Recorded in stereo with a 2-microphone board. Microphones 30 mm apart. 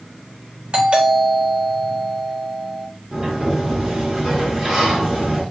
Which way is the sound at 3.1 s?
20° right (ahead or behind).